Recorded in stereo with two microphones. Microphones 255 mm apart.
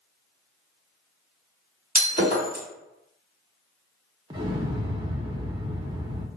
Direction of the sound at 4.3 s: 15° right (ahead or behind).